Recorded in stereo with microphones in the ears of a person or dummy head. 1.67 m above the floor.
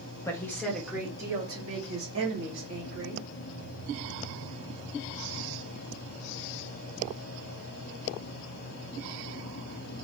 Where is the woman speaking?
15° left (ahead or behind), 1.0 m; by 3.3 s 55° right (ahead or behind), 1.9 m.